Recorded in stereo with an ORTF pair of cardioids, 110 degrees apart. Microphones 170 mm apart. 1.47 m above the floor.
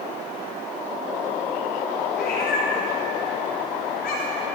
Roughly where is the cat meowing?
Left.